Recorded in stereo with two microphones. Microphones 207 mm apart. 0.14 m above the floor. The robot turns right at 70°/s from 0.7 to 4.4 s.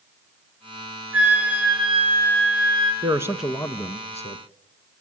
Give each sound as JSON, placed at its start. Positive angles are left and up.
{"t": 1.1, "sound": "a flute", "azimuth_deg": 90, "distance_m": 4.5}
{"t": 3.0, "sound": "a man speaking", "azimuth_deg": -30, "distance_m": 1.6}